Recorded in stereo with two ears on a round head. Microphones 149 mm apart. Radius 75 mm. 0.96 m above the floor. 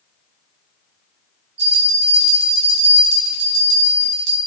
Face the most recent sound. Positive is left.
turn(degrees=-70)  # may be behind; listen again after turning